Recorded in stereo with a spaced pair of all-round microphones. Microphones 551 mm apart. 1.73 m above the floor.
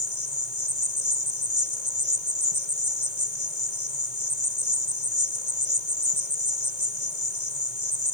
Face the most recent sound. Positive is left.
turn(degrees=55)  # may be behind; listen again after turning